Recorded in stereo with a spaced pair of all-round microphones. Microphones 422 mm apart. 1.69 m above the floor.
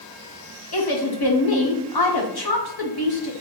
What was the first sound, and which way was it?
A woman speaking, 60° left (ahead or behind).